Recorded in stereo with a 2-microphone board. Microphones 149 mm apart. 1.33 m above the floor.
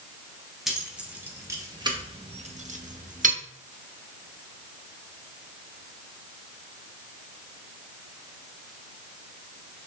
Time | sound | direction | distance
0.7 | keys jangling | centre (ahead or behind) | 1.4 m